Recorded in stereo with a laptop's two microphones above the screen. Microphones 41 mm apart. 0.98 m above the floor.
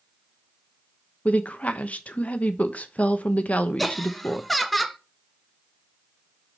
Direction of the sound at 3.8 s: Centre (ahead or behind).